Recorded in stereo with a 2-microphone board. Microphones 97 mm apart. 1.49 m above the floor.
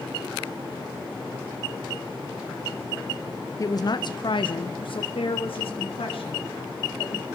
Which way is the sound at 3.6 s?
35° left (ahead or behind).